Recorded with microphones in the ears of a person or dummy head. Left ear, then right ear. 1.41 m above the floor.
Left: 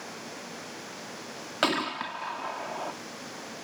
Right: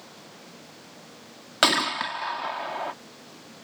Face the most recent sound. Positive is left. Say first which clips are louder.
# right 6 dB
turn(degrees=-30)  # may be behind; listen again after turning